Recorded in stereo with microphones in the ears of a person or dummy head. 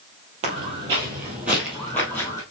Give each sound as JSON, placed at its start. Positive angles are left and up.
{"t": 0.4, "sound": "footsteps", "side_deg": -35, "distance_m": 2.0}